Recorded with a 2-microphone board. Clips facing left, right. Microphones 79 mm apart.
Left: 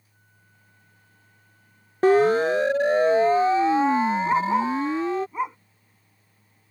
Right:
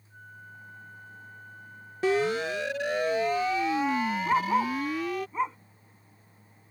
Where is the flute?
60° right (ahead or behind).